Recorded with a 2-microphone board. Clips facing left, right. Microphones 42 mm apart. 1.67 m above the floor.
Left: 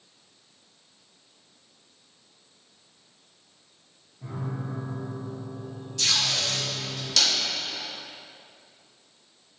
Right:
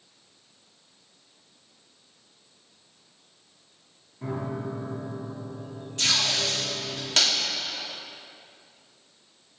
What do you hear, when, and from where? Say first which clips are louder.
4.2 s a piano: right 4 dB; 55° right (ahead or behind), 1.2 m
6.0 s tape being pulled: right 1 dB; 35° right (ahead or behind), 3.5 m